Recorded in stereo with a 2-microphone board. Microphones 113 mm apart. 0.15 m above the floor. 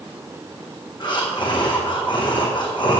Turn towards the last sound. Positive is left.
turn(degrees=45)  # may be behind; listen again after turning